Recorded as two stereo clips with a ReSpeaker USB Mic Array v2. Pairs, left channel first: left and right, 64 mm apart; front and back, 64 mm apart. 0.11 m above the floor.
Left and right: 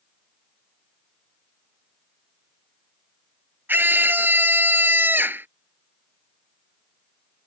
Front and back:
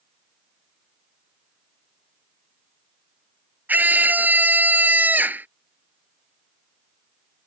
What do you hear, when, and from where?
3.7 s a scream: 130° right